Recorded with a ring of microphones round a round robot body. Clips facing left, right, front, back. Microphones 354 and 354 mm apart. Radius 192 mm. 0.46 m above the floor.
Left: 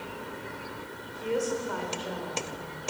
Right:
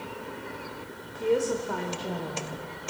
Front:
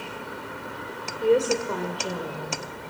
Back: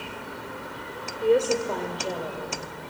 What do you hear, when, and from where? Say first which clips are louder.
1.2 s a woman speaking: right 4 dB, even; 75° right, 1.7 m; by 2.6 s 60° right, 2.5 m